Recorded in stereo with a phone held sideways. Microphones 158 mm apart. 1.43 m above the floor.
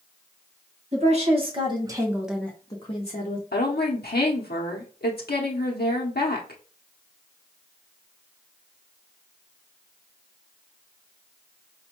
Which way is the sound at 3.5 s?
80° left.